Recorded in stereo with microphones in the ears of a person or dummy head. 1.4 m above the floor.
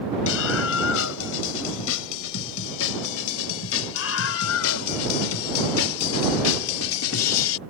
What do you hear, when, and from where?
0.3 s a scream: 80° left; by 7.6 s 90° left